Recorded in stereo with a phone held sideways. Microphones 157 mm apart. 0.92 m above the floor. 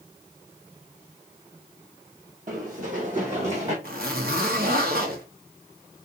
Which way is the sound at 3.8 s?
75° right (ahead or behind).